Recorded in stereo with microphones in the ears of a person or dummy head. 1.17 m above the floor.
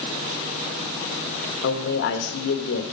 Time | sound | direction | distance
1.6 | a man speaking | 70° left (ahead or behind) | 1.3 m